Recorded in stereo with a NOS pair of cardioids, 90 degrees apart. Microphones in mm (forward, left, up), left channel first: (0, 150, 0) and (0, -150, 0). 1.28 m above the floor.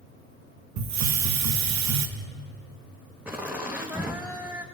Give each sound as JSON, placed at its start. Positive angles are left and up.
{"t": 0.8, "sound": "a hiss", "azimuth_deg": -65, "distance_m": 2.0}
{"t": 3.2, "sound": "laughter", "azimuth_deg": -5, "distance_m": 2.0}